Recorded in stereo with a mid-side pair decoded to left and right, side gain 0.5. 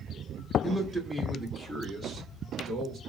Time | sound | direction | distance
0.6 | a man speaking | 10° left | 1.0 m